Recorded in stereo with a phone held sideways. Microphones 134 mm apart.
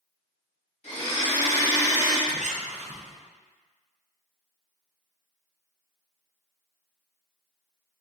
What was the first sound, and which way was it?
A blender, 65° left (ahead or behind).